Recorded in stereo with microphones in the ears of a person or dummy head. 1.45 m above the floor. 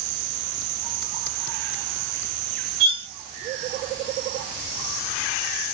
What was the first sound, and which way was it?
Cutlery clinking, 60° right (ahead or behind).